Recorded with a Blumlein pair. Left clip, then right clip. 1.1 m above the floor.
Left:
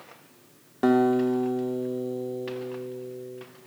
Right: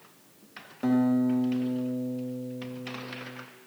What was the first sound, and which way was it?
A guitar, 65° left.